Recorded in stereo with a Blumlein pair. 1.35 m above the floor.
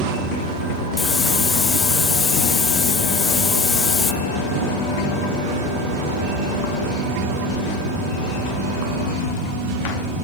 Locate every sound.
1.0 s a hiss: 15° left, 1.7 m